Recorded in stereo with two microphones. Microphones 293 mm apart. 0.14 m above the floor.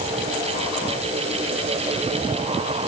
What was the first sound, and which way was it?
Only background noise.